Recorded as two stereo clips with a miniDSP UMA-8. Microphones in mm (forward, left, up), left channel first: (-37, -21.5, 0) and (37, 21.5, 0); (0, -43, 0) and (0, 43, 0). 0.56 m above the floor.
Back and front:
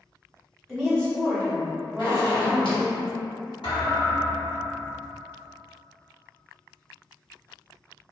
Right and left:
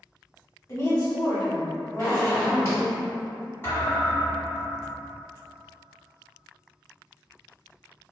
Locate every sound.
0.7 s a woman speaking: 65° right, 1.4 m; by 3.0 s 130° right, 1.7 m
2.0 s a zipper: 145° right, 1.7 m
3.6 s a thud: 150° right, 1.5 m